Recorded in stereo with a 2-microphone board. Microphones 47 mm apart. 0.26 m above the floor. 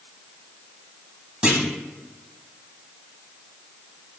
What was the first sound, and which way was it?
A clunk, 20° right (ahead or behind).